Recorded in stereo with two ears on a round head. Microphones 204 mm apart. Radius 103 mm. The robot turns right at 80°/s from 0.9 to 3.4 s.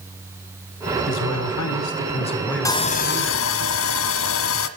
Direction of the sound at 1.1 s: 55° left.